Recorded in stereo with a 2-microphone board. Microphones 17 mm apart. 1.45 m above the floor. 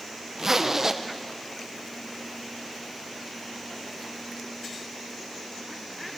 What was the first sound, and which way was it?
A zipper, 25° right (ahead or behind).